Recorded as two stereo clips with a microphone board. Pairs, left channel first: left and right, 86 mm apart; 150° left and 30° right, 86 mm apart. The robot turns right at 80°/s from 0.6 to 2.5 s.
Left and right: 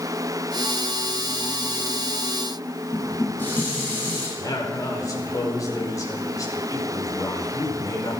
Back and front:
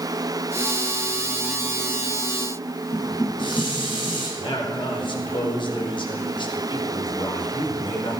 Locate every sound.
2.9 s dishes clattering: 155° left, 5.5 m
4.4 s a man speaking: 140° left, 4.5 m